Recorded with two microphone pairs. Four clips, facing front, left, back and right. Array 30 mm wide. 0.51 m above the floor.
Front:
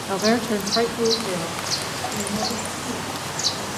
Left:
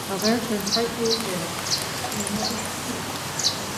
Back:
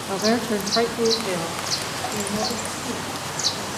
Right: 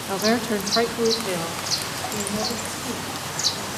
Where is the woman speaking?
35° right, 0.8 m; by 3.7 s 145° right, 2.5 m.